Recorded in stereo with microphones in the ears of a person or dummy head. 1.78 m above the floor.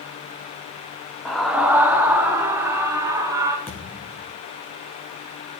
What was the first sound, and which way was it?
A scream, 5° right (ahead or behind).